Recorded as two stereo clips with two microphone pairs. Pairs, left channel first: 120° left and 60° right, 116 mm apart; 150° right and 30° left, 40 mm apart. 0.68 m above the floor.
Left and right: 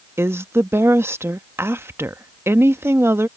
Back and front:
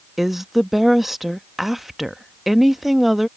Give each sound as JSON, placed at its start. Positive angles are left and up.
{"t": 0.2, "sound": "a woman speaking", "azimuth_deg": -55}